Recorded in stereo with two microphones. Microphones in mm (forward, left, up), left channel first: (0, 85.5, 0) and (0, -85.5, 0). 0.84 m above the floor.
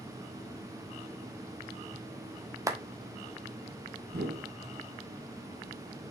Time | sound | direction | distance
2.7 | a clap | 20° right (ahead or behind) | 1.4 m
4.1 | a whoosh | 80° right | 2.5 m